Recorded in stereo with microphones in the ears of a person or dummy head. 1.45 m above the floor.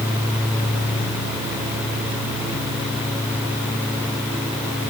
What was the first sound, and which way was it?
Only background noise.